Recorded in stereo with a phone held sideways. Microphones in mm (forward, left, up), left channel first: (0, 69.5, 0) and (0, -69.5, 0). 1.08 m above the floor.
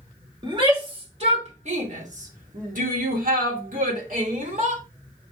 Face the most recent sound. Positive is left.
turn(degrees=-65)  # may be behind; listen again after turning